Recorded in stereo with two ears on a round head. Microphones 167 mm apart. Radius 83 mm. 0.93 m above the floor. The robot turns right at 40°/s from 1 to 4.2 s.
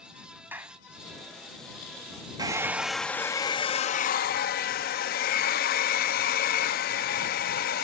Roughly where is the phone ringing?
No phone ringing in this recording.